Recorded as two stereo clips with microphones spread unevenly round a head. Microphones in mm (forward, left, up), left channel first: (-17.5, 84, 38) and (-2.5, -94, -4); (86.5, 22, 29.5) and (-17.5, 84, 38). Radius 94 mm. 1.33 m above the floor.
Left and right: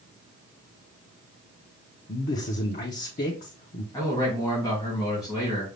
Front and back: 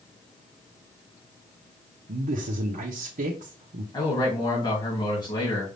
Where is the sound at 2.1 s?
145° left, 0.8 m.